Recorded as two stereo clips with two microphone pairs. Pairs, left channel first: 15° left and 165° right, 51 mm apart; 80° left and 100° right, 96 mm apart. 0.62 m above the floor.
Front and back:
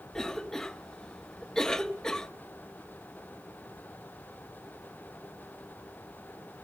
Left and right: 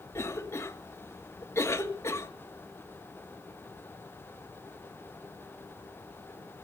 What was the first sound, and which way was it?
A cough, 85° left.